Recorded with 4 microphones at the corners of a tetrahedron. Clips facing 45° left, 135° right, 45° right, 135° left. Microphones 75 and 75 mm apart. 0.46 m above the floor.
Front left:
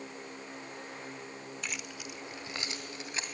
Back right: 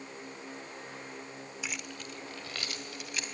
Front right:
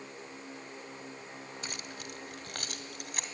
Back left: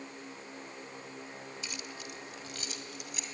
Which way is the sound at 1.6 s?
50° right.